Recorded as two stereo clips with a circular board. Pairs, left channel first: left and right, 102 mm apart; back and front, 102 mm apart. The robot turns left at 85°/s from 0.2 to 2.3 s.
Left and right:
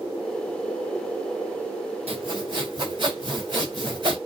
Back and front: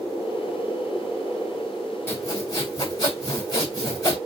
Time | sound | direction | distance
2.1 | sawing | 110° right | 3.5 m